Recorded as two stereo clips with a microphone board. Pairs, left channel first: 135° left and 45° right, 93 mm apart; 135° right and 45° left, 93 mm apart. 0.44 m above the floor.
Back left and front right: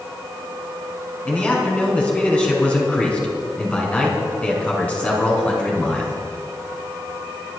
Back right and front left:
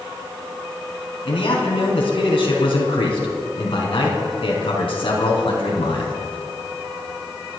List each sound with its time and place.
1.2 s a man speaking: 150° right, 4 m